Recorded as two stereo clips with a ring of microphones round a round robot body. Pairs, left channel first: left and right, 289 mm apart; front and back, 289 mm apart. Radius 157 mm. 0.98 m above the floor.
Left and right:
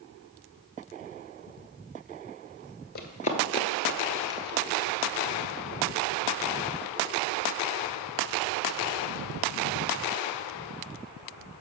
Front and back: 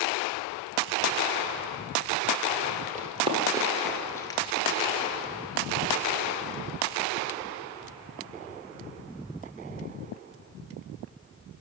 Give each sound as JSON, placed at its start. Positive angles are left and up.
{"t": 3.0, "sound": "running footsteps", "azimuth_deg": 125, "distance_m": 1.2}